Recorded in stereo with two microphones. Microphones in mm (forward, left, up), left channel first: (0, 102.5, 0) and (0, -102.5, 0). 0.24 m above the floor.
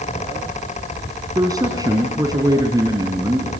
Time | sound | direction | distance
1.4 | a man speaking | 20° right (ahead or behind) | 3 m